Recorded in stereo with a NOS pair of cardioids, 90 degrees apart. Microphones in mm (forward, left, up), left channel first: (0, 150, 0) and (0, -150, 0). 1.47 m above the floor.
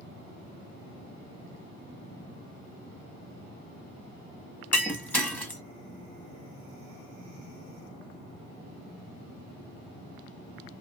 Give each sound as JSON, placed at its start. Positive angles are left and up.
{"t": 4.7, "sound": "breaking glass", "azimuth_deg": 5, "distance_m": 1.7}